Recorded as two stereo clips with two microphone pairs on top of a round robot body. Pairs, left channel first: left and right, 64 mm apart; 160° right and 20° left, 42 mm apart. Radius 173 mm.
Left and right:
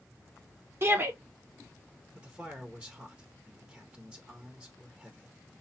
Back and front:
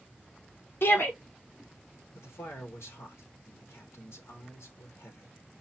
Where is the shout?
135° right, 1.7 m.